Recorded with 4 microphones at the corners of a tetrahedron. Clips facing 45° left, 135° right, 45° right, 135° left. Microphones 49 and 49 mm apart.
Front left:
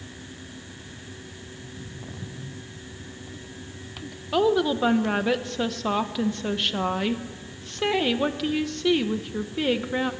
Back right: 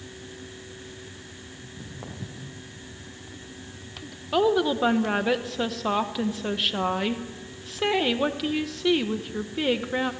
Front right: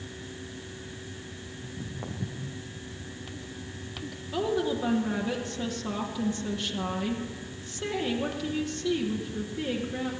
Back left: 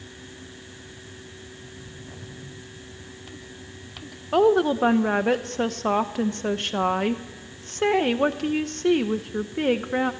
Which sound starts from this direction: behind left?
A woman speaking, at 4.3 s.